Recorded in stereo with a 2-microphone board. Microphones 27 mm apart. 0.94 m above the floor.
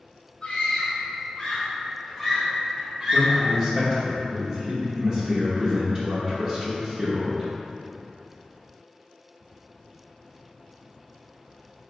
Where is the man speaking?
40° right (ahead or behind), 0.9 m.